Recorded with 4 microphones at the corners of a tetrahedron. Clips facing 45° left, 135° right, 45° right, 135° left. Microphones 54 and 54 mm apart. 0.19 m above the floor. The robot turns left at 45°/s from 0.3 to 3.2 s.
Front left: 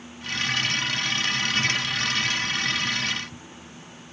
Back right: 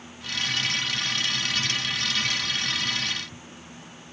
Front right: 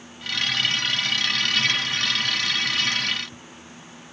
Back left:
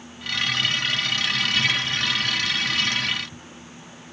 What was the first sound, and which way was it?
Only background noise.